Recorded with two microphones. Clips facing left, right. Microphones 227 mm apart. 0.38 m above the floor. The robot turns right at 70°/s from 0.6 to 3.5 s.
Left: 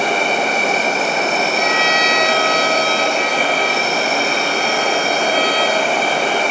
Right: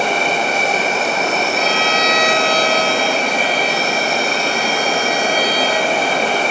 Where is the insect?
115° left, 2.5 m; by 6.5 s 40° right, 2.5 m.